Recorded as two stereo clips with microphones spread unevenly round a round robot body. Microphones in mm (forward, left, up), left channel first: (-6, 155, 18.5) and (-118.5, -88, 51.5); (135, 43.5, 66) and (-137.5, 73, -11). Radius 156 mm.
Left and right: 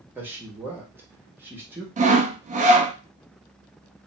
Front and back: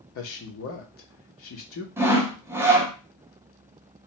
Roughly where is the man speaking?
Ahead right.